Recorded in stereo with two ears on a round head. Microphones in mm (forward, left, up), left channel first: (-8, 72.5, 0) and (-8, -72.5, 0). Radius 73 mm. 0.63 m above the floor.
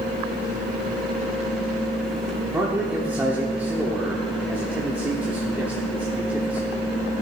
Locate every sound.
2.5 s a man speaking: 10° right (ahead or behind), 1.5 m